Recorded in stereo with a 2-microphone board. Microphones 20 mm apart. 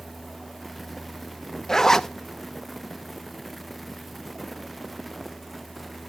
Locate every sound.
1.7 s a zipper: 25° left (ahead or behind), 0.5 m